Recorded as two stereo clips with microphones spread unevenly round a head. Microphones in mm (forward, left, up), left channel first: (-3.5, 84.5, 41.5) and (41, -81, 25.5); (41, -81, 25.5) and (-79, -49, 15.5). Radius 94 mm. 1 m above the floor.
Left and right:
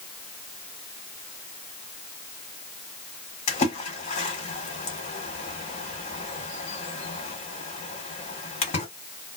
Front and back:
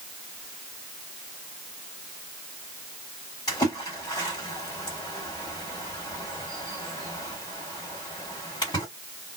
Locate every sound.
3.5 s a splash: 55° left, 1.5 m